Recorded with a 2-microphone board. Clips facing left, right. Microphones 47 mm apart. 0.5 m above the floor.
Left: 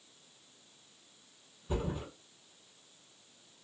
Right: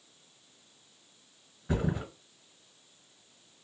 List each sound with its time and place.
1.7 s a thud: 80° right, 1.6 m